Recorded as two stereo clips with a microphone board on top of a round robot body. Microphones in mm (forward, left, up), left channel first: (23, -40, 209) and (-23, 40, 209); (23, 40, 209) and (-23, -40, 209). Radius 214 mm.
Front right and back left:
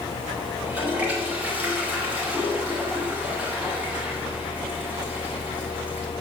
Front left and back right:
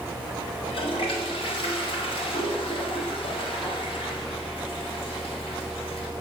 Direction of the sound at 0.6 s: 45° left.